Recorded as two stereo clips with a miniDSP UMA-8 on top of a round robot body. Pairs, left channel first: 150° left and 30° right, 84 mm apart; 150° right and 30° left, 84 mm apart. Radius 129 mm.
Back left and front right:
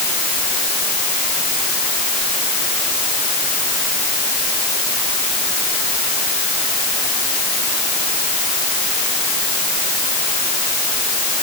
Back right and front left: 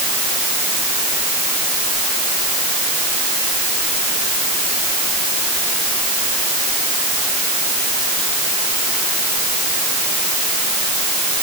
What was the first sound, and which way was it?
Only background noise.